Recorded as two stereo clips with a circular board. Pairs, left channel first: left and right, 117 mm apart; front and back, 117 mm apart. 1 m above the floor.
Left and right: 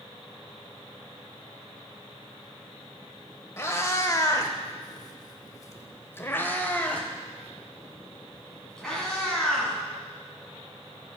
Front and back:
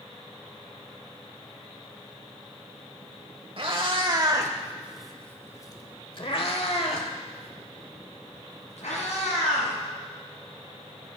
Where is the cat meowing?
150° left, 1.2 m; by 11.2 s straight ahead, 4 m.